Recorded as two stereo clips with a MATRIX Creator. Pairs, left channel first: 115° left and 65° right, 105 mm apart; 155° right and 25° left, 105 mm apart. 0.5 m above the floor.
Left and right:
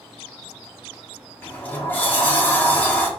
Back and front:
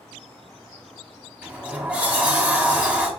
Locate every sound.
1.4 s a sliding door: 75° left, 0.8 m